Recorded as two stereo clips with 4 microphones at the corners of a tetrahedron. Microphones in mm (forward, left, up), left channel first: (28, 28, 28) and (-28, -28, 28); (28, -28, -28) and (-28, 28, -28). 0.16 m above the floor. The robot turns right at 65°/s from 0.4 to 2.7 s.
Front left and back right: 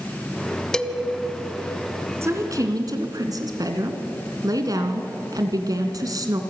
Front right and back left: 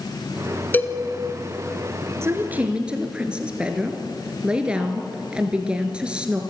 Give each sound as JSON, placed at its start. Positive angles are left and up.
{"t": 0.7, "sound": "a cowbell", "azimuth_deg": -25, "distance_m": 1.1}
{"t": 2.2, "sound": "a woman speaking", "azimuth_deg": 180, "distance_m": 2.0}